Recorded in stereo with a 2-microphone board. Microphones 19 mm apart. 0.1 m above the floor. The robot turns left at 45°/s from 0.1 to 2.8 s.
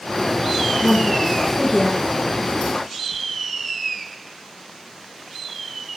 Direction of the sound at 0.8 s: 5° left (ahead or behind).